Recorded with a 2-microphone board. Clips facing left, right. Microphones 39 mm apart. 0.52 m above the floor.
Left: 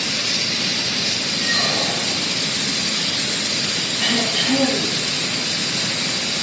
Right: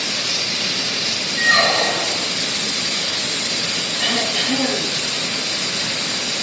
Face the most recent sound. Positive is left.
turn(degrees=-15)  # may be behind; listen again after turning